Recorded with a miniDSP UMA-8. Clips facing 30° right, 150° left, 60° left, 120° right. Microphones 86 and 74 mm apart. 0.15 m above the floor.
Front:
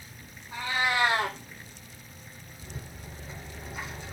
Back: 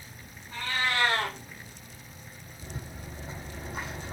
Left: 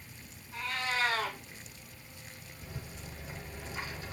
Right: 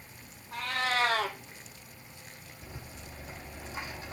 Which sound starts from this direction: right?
A cat meowing, at 0.5 s.